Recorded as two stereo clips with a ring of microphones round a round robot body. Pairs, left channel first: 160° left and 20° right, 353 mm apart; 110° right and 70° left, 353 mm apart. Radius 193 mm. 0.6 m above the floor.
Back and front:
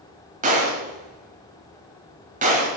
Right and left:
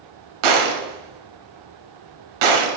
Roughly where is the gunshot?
Ahead left.